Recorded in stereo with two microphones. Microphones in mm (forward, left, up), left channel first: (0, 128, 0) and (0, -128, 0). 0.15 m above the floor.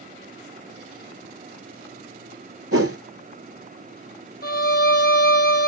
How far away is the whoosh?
About 0.6 m.